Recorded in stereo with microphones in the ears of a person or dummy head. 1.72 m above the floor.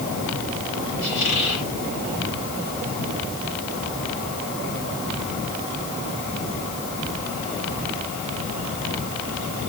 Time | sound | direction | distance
1.0 | a squeak | 65° left (ahead or behind) | 9.5 m